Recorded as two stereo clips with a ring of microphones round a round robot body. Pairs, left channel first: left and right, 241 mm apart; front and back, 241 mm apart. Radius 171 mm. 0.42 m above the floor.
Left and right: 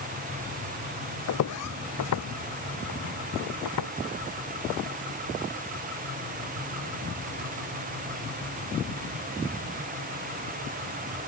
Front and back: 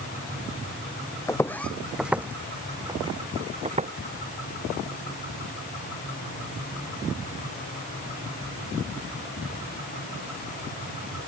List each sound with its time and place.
1.3 s footsteps: 80° left; by 3.9 s 120° left